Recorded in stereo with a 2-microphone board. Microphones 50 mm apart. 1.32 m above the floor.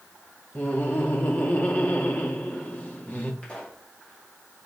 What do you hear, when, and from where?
0.6 s laughter: 35° left (ahead or behind), 2.5 m
3.4 s a pop: 25° left (ahead or behind), 4.5 m